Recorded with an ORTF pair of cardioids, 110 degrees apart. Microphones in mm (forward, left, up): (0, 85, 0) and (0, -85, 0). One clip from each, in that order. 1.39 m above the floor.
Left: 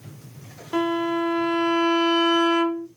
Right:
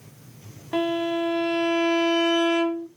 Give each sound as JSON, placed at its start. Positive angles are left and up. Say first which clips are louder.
{"t": 0.7, "sound": "a violin", "louder": "left 1 dB", "azimuth_deg": -10, "distance_m": 0.8}